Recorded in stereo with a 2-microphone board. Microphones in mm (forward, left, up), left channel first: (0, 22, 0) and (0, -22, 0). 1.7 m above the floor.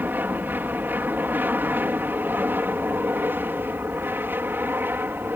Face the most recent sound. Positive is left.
turn(degrees=-55)  # may be behind; listen again after turning